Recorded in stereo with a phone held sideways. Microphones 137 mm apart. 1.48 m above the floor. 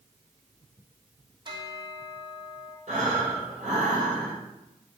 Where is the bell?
35° right (ahead or behind), 3 m.